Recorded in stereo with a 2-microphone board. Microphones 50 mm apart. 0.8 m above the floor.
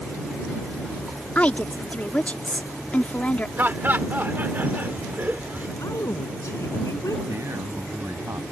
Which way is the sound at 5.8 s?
85° left.